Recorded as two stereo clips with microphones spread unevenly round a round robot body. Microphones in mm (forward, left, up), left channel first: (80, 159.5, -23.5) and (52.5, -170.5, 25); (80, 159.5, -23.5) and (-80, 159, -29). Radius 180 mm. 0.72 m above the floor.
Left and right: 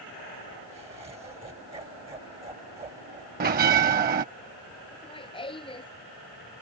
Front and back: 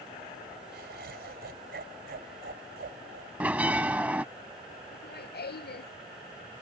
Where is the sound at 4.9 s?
10° left.